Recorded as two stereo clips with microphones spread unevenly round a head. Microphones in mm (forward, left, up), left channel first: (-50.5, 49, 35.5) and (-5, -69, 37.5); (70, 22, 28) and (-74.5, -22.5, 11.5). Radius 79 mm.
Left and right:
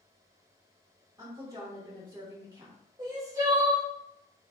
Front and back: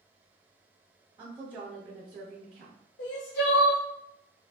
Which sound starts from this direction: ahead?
Crying, at 3.0 s.